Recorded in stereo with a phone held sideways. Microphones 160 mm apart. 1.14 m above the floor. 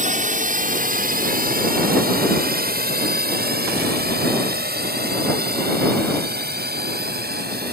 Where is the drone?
55° right (ahead or behind); by 7.7 s 80° right.